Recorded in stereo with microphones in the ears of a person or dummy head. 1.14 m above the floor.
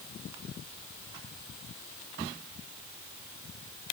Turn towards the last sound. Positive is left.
No sound to turn to.